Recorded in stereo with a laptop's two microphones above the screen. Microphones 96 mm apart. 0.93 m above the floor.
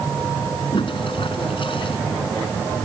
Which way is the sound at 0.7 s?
60° left (ahead or behind).